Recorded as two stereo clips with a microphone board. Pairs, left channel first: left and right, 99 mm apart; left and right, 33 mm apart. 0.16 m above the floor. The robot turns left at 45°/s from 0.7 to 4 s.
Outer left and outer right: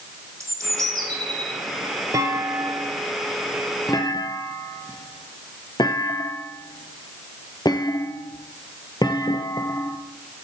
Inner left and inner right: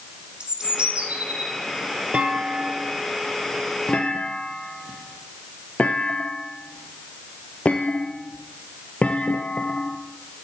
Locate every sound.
0.4 s a bird: 40° right, 1.8 m; by 1.5 s 75° right, 1.8 m
2.1 s a clunk: 35° right (ahead or behind), 1.0 m; by 10.0 s 45° left (ahead or behind), 1.0 m